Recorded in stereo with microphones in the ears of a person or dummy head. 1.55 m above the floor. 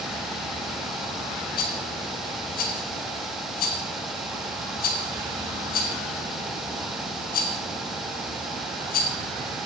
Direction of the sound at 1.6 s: 55° left (ahead or behind).